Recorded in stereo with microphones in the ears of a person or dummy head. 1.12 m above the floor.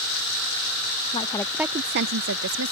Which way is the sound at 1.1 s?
25° left (ahead or behind).